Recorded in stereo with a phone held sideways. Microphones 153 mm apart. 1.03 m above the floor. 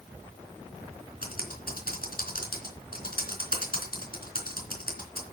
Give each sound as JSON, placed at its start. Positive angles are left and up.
{"t": 1.2, "sound": "typing on a keyboard", "side_deg": 70, "distance_m": 3.5}